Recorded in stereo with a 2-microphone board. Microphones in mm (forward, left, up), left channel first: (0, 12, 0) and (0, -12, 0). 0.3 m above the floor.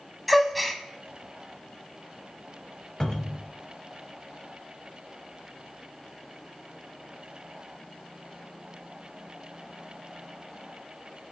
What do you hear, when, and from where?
0.3 s a gasp: 5° left (ahead or behind), 0.9 m
3.0 s a cupboard door: 20° left (ahead or behind), 0.9 m